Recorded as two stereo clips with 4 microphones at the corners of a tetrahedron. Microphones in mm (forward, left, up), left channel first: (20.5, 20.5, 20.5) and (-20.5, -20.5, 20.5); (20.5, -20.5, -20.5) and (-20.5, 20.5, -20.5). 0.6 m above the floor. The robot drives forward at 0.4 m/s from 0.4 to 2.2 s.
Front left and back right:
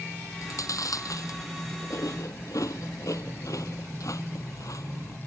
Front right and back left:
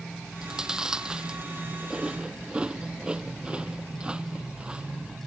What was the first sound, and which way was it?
Chewing, 55° left.